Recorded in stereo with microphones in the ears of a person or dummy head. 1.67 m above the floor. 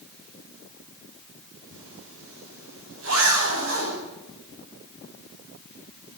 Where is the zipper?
80° right, 9.5 m.